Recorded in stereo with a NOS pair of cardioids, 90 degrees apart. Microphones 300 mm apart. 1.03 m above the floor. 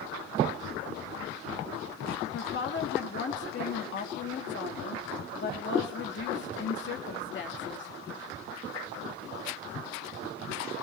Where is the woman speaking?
40° left, 1.9 m.